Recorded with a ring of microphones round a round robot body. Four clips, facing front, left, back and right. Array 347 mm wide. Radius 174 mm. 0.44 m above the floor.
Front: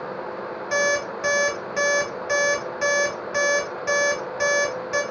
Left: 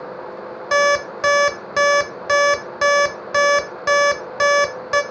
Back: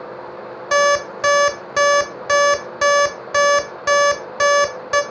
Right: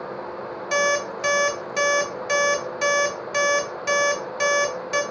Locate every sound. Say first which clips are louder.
0.7 s an alarm clock: left 6 dB, back 8 dB; 140° left, 0.6 m